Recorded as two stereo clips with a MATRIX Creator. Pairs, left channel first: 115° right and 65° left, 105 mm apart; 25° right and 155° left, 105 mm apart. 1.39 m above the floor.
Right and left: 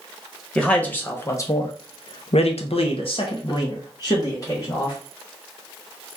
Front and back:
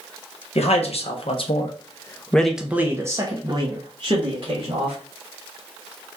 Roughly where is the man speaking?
Ahead right.